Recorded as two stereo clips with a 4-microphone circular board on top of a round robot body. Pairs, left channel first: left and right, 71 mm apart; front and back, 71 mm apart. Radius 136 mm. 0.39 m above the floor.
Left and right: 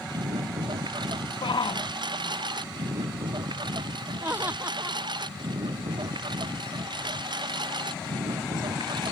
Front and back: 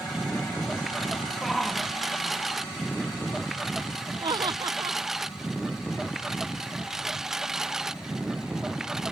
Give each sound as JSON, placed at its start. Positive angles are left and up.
{"t": 0.0, "sound": "a lawn mower", "azimuth_deg": -90}
{"t": 1.4, "sound": "a shout", "azimuth_deg": 90}
{"t": 4.2, "sound": "laughter", "azimuth_deg": -155}